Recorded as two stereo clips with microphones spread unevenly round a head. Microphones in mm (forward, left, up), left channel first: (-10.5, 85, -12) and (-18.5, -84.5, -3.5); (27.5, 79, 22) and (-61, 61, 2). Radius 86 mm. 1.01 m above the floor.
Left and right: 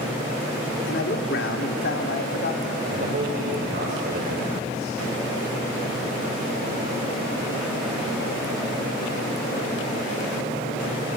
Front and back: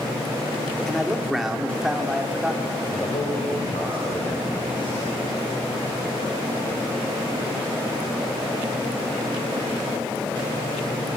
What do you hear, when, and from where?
0.9 s a man speaking: 100° left, 3 m; by 2.8 s 115° left, 3.5 m
2.9 s a man speaking: 50° right, 3.5 m